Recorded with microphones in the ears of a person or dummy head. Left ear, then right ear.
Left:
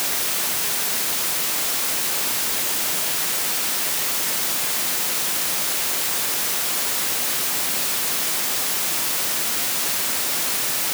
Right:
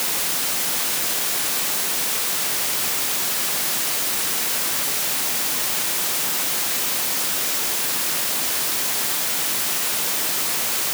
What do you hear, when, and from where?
Only background noise.